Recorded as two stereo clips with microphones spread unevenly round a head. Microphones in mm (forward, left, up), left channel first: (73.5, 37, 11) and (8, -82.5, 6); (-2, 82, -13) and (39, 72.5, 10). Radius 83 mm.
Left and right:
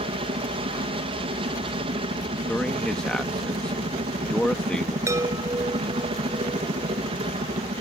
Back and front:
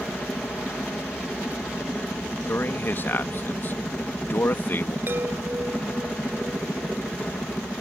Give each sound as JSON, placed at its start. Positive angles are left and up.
{"t": 0.0, "sound": "a helicopter", "azimuth_deg": -120}
{"t": 2.5, "sound": "a man speaking", "azimuth_deg": 145}
{"t": 5.1, "sound": "a chime", "azimuth_deg": -50}